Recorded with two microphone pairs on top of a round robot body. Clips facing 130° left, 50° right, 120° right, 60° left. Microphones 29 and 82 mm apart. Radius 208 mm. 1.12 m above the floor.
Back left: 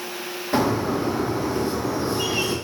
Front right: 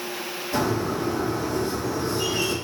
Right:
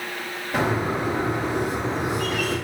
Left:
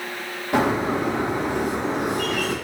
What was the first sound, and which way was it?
A bird, 80° left.